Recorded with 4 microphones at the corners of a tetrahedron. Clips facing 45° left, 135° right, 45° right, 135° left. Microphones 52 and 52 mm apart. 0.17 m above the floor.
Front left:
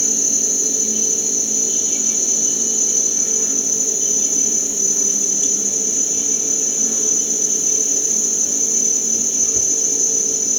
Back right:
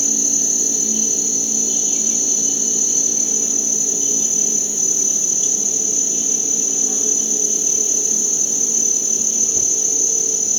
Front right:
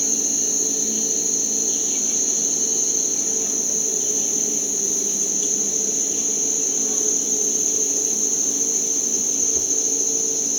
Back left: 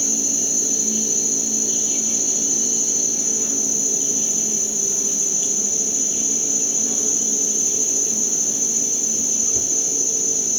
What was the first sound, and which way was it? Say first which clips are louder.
An insect: even, back left 1 dB; 55° left.